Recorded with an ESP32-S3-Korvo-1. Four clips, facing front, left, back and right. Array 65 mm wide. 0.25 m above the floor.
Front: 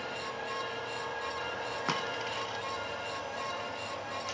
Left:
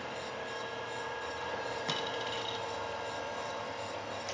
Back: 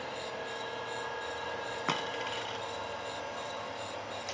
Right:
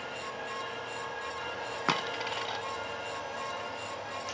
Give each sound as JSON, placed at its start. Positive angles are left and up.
{"t": 1.9, "sound": "a dropped coin", "azimuth_deg": -95, "distance_m": 0.5}